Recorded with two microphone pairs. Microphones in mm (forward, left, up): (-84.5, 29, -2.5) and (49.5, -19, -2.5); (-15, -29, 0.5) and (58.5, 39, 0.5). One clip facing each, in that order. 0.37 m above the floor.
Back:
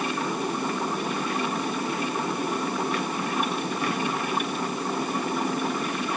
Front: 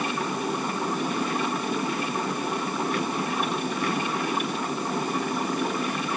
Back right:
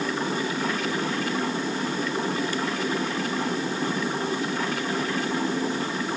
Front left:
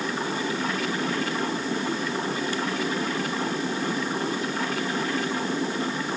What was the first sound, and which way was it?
Only background noise.